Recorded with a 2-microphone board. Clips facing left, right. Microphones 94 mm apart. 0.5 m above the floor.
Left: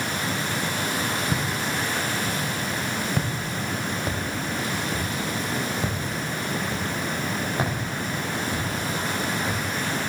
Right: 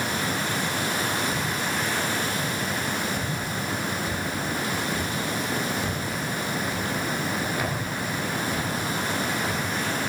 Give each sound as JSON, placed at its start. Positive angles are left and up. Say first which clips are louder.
{"t": 1.3, "sound": "footsteps", "louder": "left 1 dB", "side_deg": 80, "distance_m": 6.0}